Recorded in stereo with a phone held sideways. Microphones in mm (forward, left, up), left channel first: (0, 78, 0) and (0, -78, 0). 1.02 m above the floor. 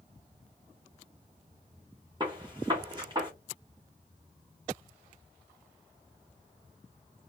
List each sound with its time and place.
2.2 s a gunshot: 30° right (ahead or behind), 0.9 m